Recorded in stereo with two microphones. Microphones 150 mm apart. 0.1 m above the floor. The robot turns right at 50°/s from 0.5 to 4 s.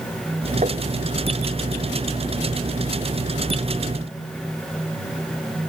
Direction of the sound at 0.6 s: 50° right (ahead or behind).